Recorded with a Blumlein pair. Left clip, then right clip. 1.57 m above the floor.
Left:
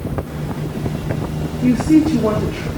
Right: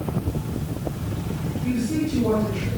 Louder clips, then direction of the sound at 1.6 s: Left 12 dB; 55° left.